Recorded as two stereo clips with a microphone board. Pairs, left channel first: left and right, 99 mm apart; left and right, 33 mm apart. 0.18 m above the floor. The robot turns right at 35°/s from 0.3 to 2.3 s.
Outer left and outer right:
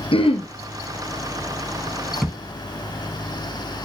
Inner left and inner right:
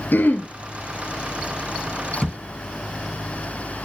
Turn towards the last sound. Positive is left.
turn(degrees=5)  # may be behind; listen again after turning